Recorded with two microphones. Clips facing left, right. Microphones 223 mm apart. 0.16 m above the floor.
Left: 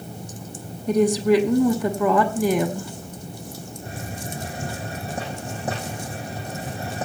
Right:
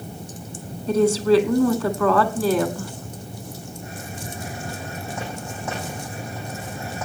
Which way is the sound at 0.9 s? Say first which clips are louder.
Right 1 dB; 15° left (ahead or behind).